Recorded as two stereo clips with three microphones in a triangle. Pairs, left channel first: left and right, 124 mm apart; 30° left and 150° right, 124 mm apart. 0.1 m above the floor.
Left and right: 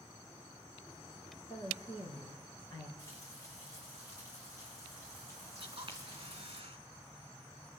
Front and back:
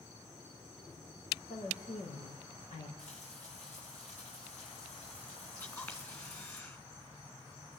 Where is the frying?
30° left, 9.5 m.